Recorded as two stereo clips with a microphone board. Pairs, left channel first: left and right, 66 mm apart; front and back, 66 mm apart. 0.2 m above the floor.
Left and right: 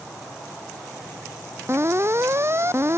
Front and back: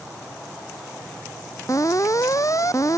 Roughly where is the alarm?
Ahead right.